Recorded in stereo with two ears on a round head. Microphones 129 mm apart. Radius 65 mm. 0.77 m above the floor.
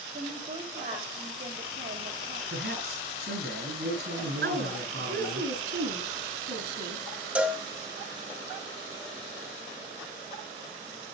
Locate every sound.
0.1 s a woman speaking: 55° right (ahead or behind), 4 m
2.5 s a man speaking: 85° right, 9 m
4.4 s a woman speaking: 85° right, 7.5 m
7.3 s a cowbell: 10° right (ahead or behind), 2.5 m